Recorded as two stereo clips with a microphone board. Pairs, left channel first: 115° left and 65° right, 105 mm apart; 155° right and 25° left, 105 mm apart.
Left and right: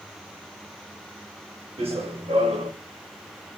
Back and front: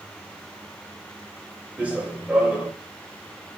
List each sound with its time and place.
1.8 s running footsteps: 55° right, 1.3 m